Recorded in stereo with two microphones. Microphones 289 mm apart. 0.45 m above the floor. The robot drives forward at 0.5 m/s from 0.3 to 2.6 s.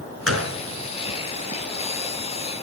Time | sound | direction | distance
0.3 | a gunshot | 50° right (ahead or behind) | 2.5 m